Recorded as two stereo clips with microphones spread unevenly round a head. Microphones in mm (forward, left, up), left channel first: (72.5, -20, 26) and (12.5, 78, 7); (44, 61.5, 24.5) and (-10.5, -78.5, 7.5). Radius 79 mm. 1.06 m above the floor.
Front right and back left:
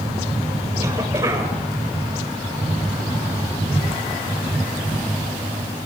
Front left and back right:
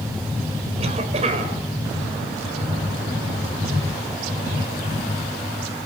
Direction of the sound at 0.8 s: 165° right.